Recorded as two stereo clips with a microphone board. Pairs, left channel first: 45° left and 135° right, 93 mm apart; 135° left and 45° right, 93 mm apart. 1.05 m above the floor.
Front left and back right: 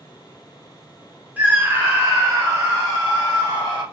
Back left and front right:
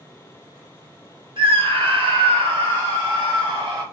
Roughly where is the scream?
Ahead right.